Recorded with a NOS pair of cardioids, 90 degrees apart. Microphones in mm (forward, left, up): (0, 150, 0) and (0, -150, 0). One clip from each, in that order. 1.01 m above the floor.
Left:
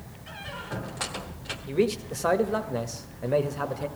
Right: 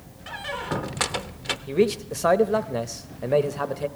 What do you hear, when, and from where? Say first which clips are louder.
0.3 s a squeak: right 7 dB; 50° right, 1.0 m
1.7 s a man speaking: right 3 dB; 15° right, 1.0 m